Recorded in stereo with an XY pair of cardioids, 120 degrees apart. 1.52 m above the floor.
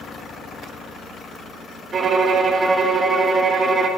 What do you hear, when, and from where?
1.9 s a violin: 40° right, 0.6 m